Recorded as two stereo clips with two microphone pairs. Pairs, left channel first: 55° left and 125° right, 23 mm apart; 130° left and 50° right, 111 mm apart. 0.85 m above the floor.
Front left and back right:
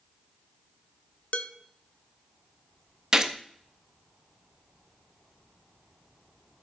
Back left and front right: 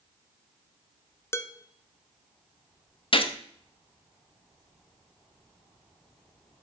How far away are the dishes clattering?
About 0.6 m.